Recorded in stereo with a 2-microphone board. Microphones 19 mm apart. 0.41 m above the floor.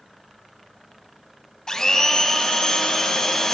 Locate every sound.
1.7 s a blender: 35° left (ahead or behind), 1.0 m